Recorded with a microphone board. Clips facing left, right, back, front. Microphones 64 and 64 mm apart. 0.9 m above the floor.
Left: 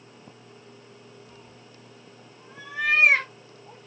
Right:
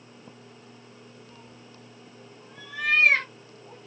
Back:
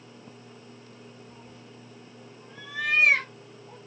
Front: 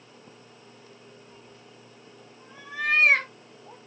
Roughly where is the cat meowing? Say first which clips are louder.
Even, back 2 dB; behind left.